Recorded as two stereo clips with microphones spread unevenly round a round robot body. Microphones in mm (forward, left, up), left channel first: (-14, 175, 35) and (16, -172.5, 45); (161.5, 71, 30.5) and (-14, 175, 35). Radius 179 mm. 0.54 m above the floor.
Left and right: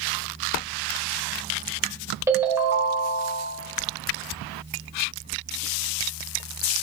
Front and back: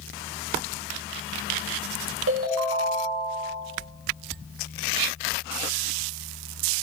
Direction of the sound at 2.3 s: 170° right.